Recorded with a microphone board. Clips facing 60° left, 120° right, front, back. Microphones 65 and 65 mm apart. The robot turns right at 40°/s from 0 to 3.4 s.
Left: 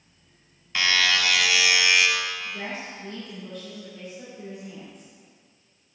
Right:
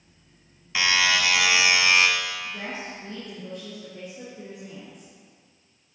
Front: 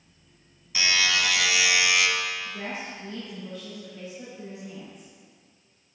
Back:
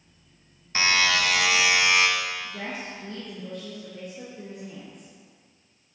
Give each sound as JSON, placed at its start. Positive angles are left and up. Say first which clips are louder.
{"t": 0.8, "sound": "a buzzer", "louder": "right 1 dB, back 2 dB", "azimuth_deg": 155, "distance_m": 1.1}
{"t": 2.4, "sound": "a woman speaking", "louder": "even, even", "azimuth_deg": 160, "distance_m": 4.0}